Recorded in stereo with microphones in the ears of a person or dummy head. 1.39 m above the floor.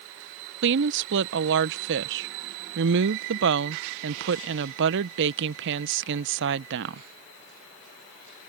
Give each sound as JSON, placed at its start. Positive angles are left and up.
{"t": 0.6, "sound": "a woman speaking", "side_deg": -60}